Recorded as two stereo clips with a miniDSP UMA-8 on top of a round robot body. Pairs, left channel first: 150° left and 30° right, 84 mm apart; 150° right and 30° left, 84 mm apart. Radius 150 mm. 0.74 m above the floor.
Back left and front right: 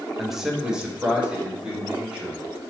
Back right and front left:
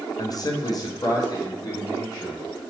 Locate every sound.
0.2 s a man speaking: 120° right, 0.6 m; by 2.4 s 105° right, 1.8 m